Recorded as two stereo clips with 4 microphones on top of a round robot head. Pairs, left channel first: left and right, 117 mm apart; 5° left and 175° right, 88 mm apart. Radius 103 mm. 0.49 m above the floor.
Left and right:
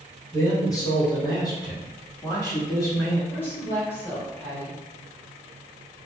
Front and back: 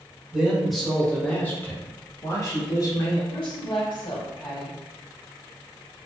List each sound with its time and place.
0.3 s a man speaking: 115° left, 1.3 m; by 3.2 s 35° left, 1.9 m
3.3 s a woman speaking: 20° left, 1.9 m